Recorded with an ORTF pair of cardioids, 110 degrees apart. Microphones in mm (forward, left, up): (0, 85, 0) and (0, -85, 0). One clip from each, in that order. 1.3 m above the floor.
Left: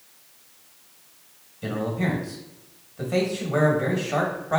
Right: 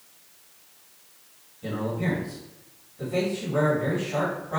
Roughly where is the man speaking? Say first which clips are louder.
Left 2 dB; ahead left.